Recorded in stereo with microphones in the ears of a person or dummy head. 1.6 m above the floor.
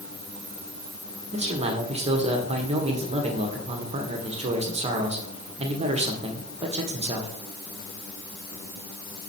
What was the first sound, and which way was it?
A man speaking, 30° right (ahead or behind).